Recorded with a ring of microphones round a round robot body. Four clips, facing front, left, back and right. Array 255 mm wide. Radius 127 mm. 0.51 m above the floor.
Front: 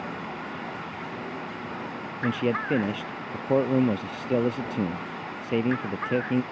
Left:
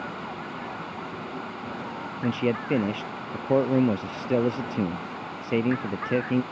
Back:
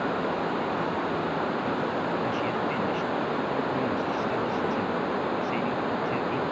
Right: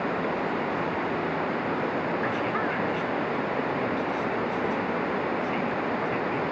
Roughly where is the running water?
Behind right.